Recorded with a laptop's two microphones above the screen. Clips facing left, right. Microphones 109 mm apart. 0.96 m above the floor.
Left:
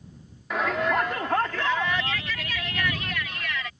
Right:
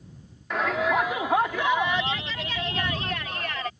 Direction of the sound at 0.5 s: Centre (ahead or behind).